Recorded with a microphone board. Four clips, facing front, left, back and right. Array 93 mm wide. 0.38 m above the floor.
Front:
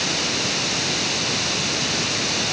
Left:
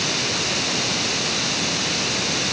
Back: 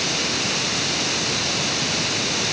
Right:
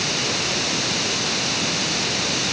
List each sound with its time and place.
Only background noise.